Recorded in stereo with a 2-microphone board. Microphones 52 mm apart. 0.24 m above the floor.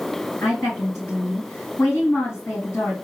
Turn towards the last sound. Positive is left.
turn(degrees=55)  # may be behind; listen again after turning